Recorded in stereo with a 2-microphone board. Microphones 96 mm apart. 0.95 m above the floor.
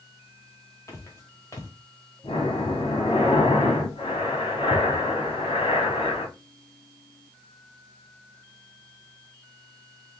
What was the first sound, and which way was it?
Footsteps, 30° left (ahead or behind).